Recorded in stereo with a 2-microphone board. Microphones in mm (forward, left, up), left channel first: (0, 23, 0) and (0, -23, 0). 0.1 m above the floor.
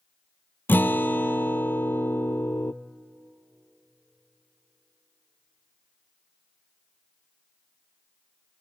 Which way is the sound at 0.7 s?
50° left (ahead or behind).